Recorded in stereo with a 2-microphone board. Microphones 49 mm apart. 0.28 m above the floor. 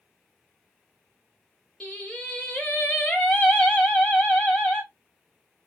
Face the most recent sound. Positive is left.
turn(degrees=20)  # may be behind; listen again after turning